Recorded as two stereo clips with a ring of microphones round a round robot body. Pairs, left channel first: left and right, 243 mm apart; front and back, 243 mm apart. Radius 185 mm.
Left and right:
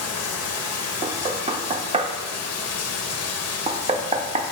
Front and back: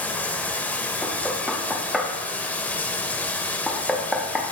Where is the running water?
85° left, 0.8 m.